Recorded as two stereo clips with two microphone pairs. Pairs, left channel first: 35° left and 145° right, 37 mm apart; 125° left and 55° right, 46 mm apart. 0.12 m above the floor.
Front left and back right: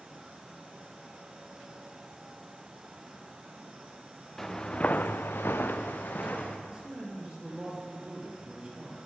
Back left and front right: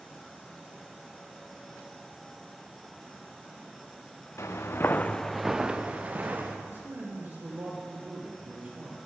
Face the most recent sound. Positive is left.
turn(degrees=-85)